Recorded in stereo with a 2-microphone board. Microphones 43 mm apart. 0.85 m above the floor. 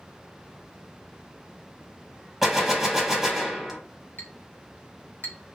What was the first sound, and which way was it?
A gunshot, 10° right (ahead or behind).